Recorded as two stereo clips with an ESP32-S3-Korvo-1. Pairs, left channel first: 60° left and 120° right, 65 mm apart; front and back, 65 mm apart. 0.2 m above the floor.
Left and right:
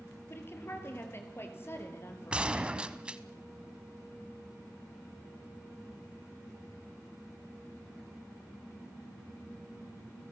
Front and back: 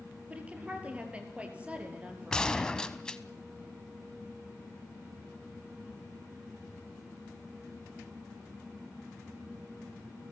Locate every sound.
0.3 s a woman speaking: 110° left, 4 m
2.3 s a gunshot: 65° right, 1.0 m